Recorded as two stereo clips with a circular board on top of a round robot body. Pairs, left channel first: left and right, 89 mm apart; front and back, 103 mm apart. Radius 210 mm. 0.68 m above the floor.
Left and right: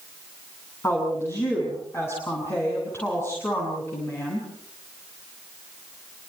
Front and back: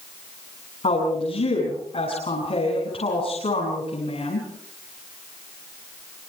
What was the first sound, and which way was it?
A woman speaking, 25° left.